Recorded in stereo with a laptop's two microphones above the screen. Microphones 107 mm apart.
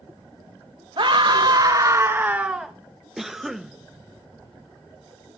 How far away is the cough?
About 0.6 m.